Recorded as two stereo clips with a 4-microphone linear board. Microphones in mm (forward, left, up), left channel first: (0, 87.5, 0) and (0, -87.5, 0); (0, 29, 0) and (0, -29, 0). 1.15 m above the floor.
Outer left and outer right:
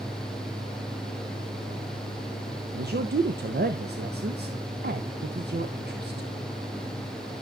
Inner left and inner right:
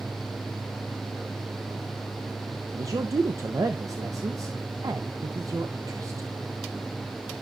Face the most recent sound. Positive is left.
turn(degrees=-70)  # may be behind; listen again after turning